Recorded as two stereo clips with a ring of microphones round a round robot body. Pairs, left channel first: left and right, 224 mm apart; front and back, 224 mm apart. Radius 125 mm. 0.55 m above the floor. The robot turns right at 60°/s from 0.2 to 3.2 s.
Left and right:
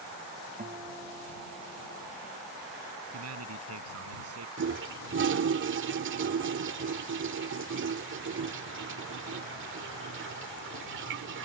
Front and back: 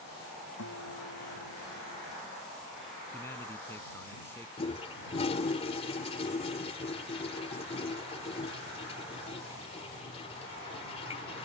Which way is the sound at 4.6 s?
65° right.